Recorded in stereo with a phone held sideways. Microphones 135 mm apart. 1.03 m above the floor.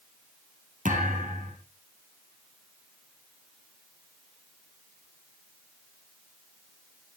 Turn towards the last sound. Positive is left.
turn(degrees=-75)  # may be behind; listen again after turning